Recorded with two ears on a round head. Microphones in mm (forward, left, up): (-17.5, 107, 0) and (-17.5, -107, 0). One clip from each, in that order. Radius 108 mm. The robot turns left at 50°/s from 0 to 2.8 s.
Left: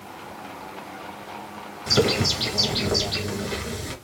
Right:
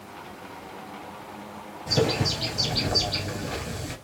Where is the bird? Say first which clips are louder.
Left 4 dB; 75° left, 2 m; by 4.0 s 25° left, 2 m.